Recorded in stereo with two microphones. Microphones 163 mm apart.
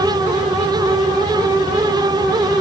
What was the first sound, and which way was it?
Only background noise.